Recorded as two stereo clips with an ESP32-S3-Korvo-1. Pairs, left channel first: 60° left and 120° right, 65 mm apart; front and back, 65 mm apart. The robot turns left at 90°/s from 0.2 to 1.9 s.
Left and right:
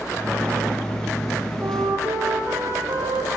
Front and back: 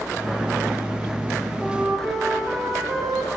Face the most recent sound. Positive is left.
turn(degrees=-90)